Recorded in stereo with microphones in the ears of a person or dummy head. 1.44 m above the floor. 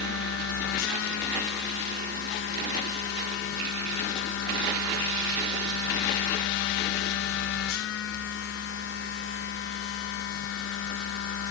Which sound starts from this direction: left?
A machine running, at 0.0 s.